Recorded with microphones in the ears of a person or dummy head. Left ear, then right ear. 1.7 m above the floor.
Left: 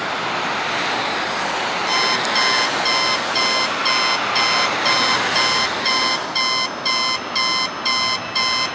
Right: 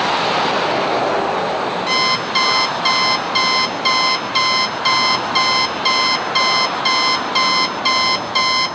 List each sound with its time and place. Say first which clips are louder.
1.9 s an alarm clock: right 1 dB; 20° right (ahead or behind), 1.0 m